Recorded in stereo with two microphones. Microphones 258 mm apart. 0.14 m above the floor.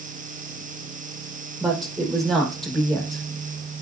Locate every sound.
1.6 s a woman speaking: centre (ahead or behind), 4.5 m